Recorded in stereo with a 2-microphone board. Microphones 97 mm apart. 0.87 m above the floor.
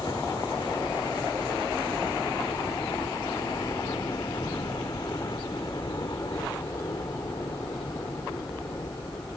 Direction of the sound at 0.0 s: 45° left (ahead or behind).